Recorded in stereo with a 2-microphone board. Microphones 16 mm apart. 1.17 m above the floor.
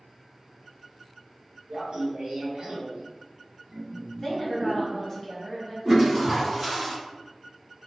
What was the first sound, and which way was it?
Laughter, 65° right (ahead or behind).